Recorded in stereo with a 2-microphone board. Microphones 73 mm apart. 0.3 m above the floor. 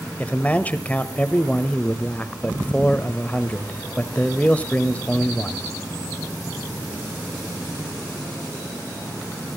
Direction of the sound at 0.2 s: 20° left (ahead or behind).